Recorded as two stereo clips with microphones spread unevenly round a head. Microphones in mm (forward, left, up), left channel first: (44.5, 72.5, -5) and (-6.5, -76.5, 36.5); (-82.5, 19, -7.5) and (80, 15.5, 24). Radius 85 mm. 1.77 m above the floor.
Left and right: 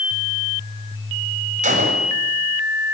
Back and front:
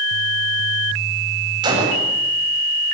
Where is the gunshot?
65° right, 8 m.